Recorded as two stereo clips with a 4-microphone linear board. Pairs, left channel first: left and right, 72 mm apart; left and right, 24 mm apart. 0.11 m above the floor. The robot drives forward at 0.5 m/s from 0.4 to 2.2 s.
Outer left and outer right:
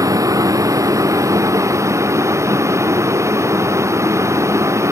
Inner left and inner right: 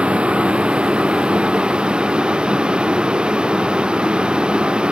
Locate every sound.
0.0 s a vehicle: 50° right (ahead or behind); by 4.9 s 40° right (ahead or behind)